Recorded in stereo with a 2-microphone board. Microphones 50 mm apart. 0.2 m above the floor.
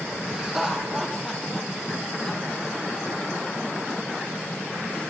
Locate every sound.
0.3 s laughter: 10° right (ahead or behind), 7 m; by 4.6 s 35° left (ahead or behind), 6 m